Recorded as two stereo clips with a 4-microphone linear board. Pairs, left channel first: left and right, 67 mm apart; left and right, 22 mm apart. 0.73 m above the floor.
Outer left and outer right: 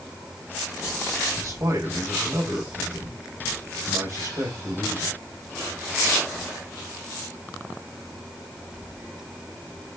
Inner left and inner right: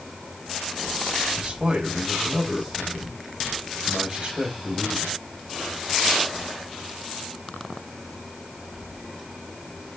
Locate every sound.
1.4 s a man speaking: 55° right (ahead or behind), 4 m